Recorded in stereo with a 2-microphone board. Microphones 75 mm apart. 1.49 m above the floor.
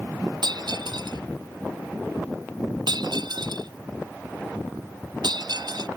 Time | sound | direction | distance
0.4 | breaking glass | 70° right (ahead or behind) | ?